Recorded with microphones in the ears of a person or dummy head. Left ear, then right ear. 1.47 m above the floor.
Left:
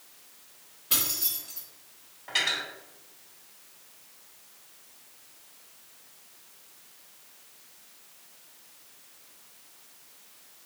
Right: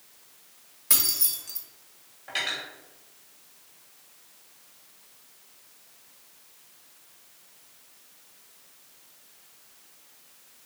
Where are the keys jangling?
55° right (ahead or behind), 1.2 m.